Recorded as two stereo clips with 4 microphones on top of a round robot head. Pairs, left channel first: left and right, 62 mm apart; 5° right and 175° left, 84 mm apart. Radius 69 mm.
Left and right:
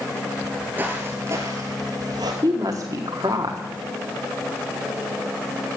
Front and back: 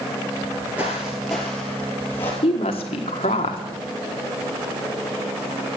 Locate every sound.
0.4 s footsteps: 140° right, 1.8 m; by 2.3 s 70° right, 2.5 m
2.4 s a woman speaking: 35° right, 1.5 m